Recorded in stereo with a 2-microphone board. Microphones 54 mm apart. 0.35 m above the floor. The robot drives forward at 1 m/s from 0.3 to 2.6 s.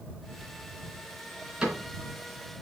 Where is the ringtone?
I don't hear a ringtone.